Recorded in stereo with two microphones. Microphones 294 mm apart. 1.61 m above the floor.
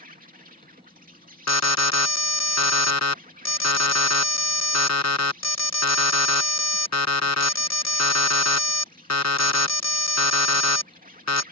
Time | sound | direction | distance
0.0 | an insect | 30° right (ahead or behind) | ?
1.5 | an alarm | 60° left (ahead or behind) | ?